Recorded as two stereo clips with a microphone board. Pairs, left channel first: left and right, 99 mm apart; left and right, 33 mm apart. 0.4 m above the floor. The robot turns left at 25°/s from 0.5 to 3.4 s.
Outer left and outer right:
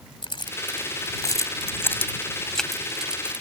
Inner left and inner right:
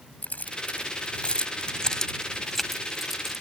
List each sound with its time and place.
0.2 s keys jangling: 50° left (ahead or behind); by 3.4 s 15° right (ahead or behind)